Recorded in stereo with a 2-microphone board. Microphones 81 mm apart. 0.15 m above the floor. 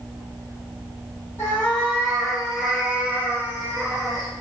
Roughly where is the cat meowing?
Left.